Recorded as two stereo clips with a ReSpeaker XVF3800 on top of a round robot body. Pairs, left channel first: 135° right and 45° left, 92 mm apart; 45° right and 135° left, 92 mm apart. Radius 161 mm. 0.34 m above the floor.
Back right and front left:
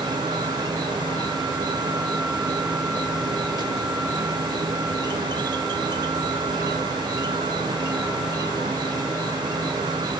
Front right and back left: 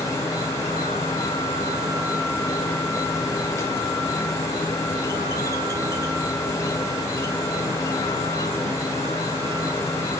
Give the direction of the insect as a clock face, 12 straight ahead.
12 o'clock.